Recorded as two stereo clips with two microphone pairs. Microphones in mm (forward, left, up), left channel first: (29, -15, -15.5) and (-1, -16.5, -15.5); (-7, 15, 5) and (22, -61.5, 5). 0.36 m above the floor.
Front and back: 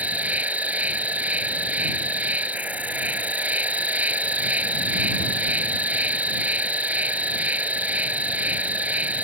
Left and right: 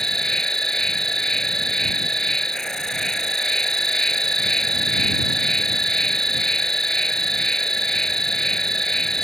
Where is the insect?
165° right.